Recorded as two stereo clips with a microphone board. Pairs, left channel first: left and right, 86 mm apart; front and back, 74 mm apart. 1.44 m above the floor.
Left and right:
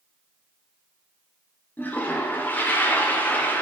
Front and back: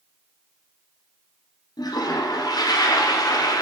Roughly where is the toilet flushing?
Ahead left.